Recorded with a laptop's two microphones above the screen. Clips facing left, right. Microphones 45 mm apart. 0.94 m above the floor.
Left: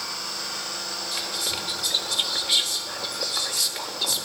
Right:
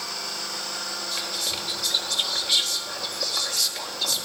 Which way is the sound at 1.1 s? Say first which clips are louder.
Left 2 dB; 10° left (ahead or behind).